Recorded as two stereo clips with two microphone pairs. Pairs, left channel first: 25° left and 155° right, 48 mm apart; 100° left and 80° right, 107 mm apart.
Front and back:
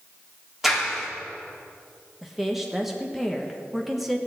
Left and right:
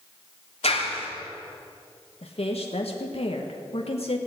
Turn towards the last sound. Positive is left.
turn(degrees=120)